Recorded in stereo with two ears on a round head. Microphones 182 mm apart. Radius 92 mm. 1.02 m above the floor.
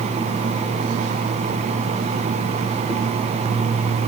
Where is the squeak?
No squeak in this recording.